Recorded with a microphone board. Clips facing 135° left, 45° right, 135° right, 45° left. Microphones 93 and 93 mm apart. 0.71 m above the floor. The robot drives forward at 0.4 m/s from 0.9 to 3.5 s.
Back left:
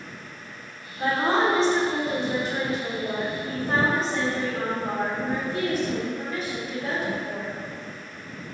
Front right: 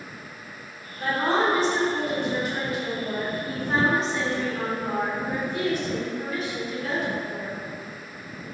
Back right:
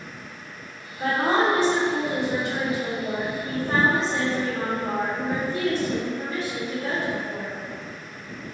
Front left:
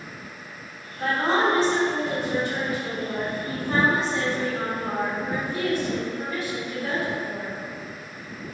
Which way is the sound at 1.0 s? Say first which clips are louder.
Back left 1 dB, back right 1 dB; 155° left.